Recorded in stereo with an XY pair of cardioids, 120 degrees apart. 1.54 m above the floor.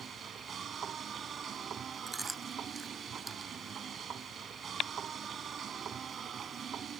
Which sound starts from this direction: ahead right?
A machine running, at 0.0 s.